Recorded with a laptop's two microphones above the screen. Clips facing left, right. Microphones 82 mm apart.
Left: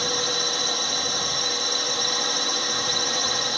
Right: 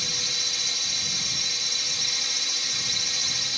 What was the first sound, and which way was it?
A drone, 55° left (ahead or behind).